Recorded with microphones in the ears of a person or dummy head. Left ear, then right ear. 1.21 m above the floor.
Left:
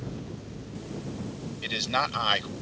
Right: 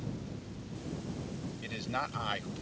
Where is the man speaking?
40° left (ahead or behind).